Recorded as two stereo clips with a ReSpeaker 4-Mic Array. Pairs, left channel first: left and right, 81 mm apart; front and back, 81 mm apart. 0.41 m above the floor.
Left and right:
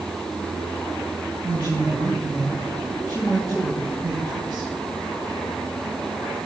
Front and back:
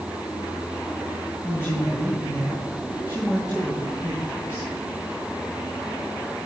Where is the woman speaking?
55° right, 3 m.